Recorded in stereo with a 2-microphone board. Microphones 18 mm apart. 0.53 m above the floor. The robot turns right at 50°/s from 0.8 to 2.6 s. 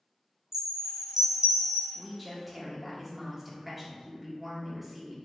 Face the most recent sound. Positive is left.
turn(degrees=-155)